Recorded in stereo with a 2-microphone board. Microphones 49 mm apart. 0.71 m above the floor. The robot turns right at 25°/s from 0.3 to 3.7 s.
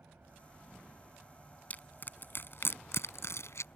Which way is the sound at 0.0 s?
50° right.